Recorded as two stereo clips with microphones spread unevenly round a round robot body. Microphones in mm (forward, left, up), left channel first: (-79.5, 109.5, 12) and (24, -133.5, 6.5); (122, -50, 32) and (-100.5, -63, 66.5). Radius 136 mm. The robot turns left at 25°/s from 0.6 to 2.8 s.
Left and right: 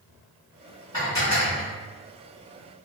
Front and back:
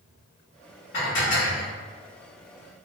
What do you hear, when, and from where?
0.9 s dishes clattering: 40° left, 1.7 m; by 1.7 s 25° left, 1.7 m